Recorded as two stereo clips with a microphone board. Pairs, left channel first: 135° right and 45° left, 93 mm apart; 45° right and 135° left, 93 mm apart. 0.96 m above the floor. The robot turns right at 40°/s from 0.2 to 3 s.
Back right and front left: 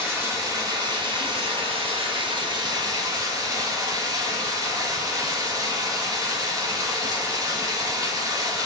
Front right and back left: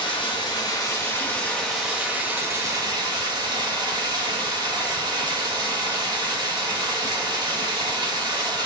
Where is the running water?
15° right, 1.0 m; by 8.7 s 95° left, 1.0 m.